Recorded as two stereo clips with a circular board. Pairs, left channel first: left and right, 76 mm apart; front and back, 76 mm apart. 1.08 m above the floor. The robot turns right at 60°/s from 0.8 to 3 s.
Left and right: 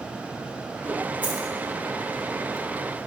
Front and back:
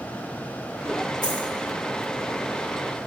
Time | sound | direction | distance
1.2 | a dropped coin | 25° right | 3.5 m